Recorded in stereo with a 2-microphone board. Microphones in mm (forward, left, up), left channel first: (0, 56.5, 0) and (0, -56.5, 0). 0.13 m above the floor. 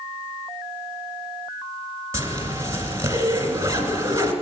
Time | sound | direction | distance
2.1 | a zipper | 25° right (ahead or behind) | 1.8 m